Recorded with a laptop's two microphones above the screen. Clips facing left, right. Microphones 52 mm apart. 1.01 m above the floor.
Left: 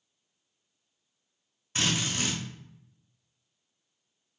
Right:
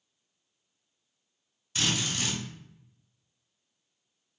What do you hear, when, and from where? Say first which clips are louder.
1.8 s a drill: left 1 dB; 35° left (ahead or behind), 2.5 m